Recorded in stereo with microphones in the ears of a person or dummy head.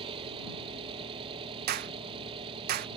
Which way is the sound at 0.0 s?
30° right (ahead or behind).